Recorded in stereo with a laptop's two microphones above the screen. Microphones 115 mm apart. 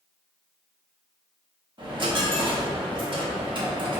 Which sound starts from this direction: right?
A dropped coin, at 1.8 s.